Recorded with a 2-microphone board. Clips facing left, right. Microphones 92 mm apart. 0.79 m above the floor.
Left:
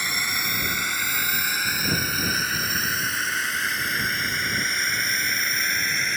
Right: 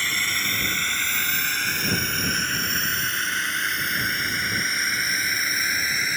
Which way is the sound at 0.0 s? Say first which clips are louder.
Even; 15° left (ahead or behind).